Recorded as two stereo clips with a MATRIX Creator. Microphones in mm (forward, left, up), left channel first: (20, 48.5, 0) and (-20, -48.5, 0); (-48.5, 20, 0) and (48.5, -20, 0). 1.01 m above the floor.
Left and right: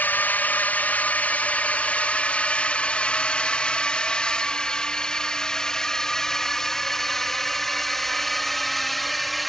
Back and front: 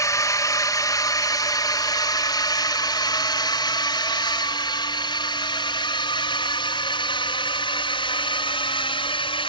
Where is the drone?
130° left; by 9.5 s 155° left.